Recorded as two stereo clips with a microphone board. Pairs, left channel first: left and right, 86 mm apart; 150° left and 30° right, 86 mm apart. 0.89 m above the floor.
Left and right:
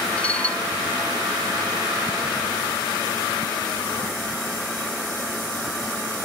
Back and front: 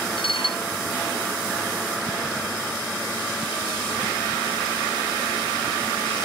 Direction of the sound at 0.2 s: 165° left.